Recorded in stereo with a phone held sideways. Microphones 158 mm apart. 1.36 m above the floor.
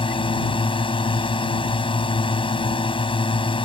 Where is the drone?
30° left (ahead or behind).